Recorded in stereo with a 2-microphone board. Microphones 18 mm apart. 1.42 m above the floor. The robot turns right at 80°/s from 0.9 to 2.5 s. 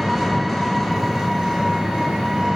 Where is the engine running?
175° right, 0.7 m; by 2.6 s 50° right, 0.7 m.